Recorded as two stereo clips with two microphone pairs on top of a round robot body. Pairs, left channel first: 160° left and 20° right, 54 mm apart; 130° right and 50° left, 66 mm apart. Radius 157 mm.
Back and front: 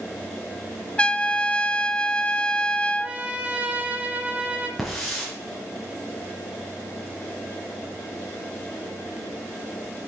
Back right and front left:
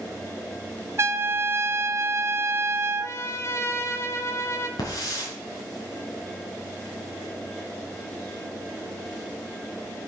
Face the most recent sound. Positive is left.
turn(degrees=-110)